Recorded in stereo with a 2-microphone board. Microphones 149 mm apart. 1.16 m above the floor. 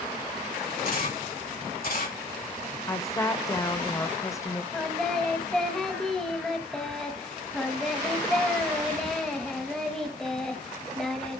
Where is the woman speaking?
20° left (ahead or behind), 0.6 m.